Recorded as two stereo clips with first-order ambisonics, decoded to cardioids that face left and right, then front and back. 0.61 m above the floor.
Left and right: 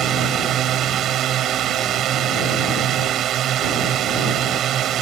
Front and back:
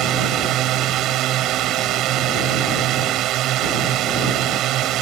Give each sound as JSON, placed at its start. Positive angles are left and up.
{"t": 0.0, "sound": "a drone", "azimuth_deg": -140}